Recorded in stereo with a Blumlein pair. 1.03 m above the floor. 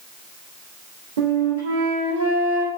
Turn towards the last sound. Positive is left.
turn(degrees=-65)